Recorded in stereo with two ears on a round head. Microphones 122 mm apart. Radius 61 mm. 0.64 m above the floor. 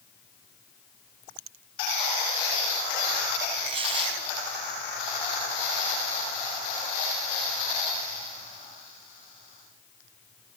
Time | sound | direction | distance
3.6 | tearing paper | 40° right (ahead or behind) | 4 m